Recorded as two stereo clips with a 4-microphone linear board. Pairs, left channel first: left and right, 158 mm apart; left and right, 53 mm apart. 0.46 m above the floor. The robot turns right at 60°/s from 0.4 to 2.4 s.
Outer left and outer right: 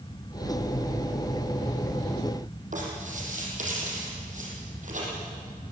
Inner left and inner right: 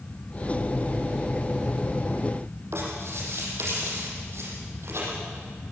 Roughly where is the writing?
Right.